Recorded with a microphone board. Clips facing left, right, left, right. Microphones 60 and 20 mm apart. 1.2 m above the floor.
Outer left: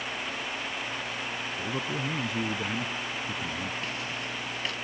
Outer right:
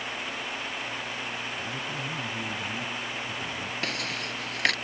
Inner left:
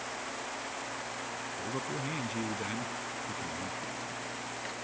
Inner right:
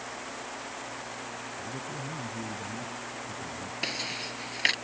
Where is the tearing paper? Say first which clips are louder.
Outer right 2 dB, inner right 6 dB; 80° right.